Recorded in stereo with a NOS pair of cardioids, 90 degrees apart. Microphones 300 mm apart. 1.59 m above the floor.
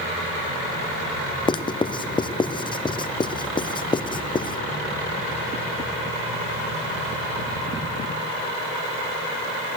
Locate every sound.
1.5 s writing: 15° left, 0.6 m